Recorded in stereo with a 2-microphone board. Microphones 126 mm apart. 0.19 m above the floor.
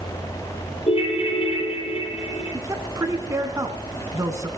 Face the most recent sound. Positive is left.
turn(degrees=-25)  # may be behind; listen again after turning